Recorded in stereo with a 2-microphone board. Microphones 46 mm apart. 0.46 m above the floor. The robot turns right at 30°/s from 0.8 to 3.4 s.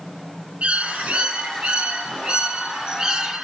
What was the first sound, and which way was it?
A bird, 25° right (ahead or behind).